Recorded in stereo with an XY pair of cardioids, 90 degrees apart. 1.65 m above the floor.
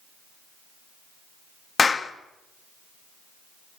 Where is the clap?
40° left, 2 m.